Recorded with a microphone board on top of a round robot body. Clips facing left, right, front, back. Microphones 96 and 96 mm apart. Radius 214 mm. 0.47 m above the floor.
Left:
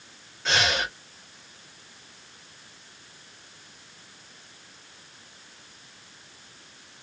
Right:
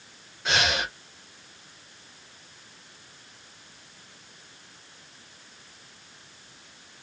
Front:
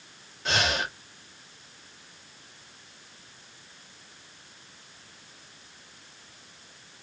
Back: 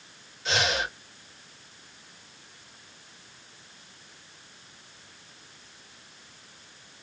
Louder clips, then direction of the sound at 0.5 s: Left 1 dB, even; 10° right.